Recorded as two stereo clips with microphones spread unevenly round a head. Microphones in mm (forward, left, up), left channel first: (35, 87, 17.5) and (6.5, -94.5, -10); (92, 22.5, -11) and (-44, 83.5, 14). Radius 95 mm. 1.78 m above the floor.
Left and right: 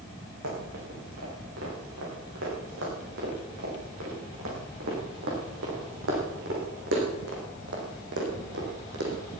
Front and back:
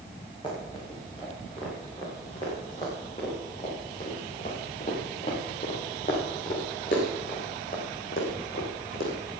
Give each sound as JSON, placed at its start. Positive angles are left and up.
{"t": 0.4, "sound": "running footsteps", "azimuth_deg": -95, "distance_m": 8.5}